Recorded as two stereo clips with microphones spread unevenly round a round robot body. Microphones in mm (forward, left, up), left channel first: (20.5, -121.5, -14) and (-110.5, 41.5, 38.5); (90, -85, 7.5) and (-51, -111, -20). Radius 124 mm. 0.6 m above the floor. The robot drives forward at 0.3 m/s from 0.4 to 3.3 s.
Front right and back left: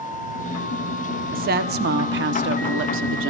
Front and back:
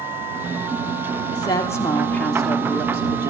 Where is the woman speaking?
80° left, 0.9 m; by 3.3 s 130° left, 1.0 m.